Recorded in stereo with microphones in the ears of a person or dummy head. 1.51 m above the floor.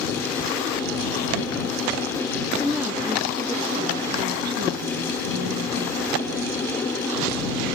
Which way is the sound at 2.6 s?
5° left (ahead or behind).